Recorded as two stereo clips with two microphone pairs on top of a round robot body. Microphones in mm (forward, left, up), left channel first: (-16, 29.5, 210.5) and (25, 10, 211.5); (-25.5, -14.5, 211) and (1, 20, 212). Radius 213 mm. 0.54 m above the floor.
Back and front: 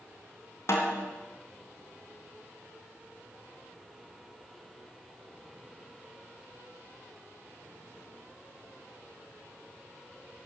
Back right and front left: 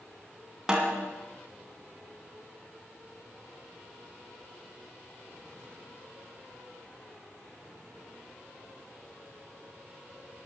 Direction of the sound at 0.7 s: 125° left.